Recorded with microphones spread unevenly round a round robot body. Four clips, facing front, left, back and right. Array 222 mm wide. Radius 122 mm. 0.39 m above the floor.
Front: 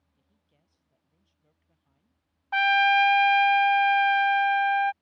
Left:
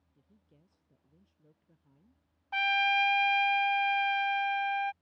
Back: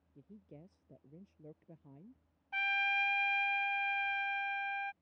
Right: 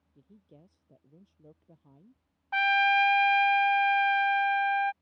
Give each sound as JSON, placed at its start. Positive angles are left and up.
{"t": 0.1, "sound": "a woman speaking", "azimuth_deg": -155}
{"t": 2.5, "sound": "a trumpet", "azimuth_deg": -10}